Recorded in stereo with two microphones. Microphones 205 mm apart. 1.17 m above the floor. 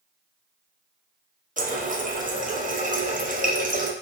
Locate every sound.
1.6 s a running tap: 40° right (ahead or behind), 0.6 m